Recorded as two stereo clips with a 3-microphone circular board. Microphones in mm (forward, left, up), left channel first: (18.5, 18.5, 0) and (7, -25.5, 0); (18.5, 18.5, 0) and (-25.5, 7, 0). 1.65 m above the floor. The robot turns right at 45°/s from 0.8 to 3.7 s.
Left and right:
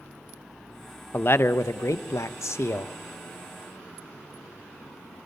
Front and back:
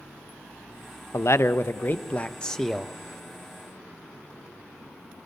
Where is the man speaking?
30° left, 0.5 m; by 2.9 s 110° left, 0.5 m.